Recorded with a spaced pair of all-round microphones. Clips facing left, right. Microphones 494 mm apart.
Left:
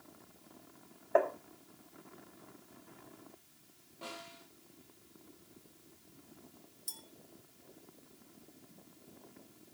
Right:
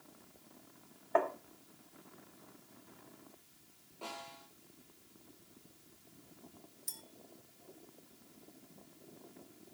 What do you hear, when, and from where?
1.1 s tapping: 20° right (ahead or behind), 1.3 m
4.0 s a snare drum: 35° left (ahead or behind), 7.5 m
6.9 s a clink: 20° left (ahead or behind), 1.3 m